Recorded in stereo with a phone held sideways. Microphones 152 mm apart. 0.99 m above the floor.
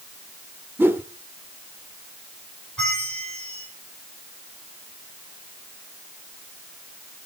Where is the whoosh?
15° right (ahead or behind), 0.7 m.